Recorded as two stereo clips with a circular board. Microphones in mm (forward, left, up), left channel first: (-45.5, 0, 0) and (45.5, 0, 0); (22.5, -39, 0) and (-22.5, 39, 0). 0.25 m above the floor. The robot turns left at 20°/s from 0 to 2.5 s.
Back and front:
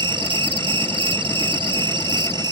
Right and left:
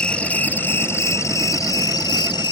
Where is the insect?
20° left; by 2.5 s 30° right.